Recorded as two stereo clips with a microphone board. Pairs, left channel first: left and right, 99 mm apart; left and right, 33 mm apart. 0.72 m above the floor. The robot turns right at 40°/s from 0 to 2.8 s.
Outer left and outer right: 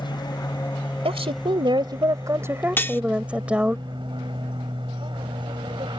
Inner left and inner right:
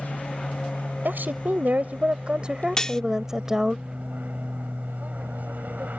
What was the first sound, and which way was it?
An aircraft, 125° left.